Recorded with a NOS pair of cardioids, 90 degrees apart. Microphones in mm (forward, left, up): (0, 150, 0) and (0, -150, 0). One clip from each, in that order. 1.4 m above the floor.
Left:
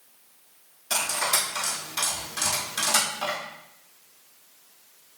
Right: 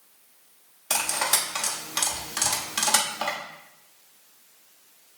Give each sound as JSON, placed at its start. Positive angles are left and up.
{"t": 0.9, "sound": "cutlery clinking", "azimuth_deg": -55, "distance_m": 1.7}